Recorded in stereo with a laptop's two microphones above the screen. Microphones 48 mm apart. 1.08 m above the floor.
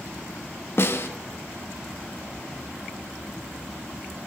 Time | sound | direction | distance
0.8 | a snare drum | 55° left (ahead or behind) | 1.7 m